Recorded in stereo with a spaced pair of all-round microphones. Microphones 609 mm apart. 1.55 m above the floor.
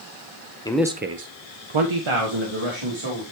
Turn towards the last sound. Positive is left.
turn(degrees=-50)  # may be behind; listen again after turning